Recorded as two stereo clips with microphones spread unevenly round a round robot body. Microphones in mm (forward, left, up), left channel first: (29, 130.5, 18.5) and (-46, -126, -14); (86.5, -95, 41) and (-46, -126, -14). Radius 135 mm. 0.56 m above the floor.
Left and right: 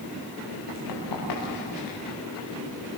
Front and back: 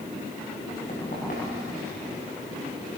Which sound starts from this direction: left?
Running footsteps, at 0.7 s.